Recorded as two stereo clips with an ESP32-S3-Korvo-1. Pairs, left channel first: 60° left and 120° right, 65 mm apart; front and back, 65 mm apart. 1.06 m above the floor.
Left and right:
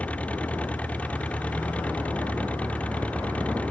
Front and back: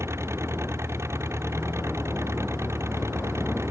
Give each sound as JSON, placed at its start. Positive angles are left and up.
{"t": 0.0, "sound": "an engine running", "azimuth_deg": 130}